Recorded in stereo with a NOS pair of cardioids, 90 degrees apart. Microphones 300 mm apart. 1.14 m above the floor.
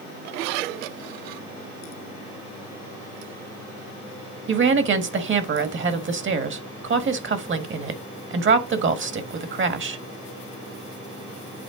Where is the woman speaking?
40° right, 1.5 m.